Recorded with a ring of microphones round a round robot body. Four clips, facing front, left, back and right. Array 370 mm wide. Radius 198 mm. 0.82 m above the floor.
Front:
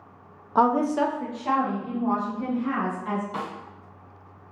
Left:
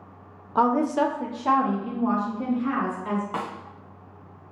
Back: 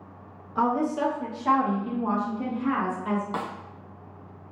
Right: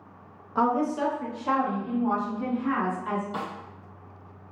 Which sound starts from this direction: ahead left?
A woman speaking, at 0.6 s.